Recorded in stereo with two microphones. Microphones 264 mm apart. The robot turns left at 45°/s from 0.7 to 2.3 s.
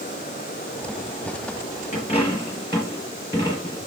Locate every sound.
1.9 s a dropped coin: 30° left (ahead or behind), 3 m; by 3.8 s 15° left (ahead or behind), 3 m